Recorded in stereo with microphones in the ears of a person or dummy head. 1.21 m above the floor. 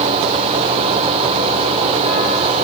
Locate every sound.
Only background noise.